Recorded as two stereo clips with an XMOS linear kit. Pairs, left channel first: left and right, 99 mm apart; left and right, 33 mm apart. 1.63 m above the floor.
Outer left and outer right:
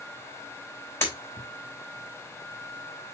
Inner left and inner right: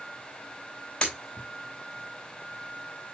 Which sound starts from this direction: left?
Breaking glass, at 1.0 s.